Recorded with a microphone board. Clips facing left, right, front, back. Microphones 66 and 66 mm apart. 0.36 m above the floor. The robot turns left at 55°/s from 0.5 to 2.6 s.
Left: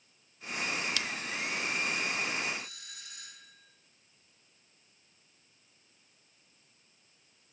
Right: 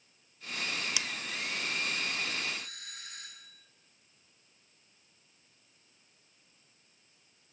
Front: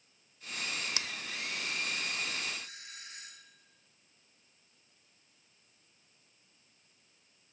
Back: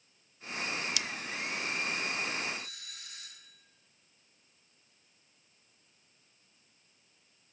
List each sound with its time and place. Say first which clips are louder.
1.0 s scissors: left 2 dB, back 2 dB; 20° right, 0.7 m; by 1.1 s 25° right, 0.7 m
2.6 s a doorbell: even, back 1 dB; 55° right, 7.5 m; by 3.7 s 60° right, 7.5 m